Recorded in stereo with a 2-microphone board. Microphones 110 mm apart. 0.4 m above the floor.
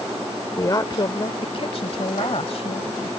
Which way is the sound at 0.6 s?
30° left (ahead or behind).